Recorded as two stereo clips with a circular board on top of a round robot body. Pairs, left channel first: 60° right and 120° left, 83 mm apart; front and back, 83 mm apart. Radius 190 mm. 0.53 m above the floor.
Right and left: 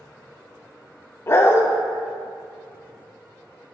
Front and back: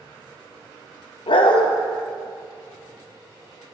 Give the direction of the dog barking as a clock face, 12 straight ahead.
12 o'clock.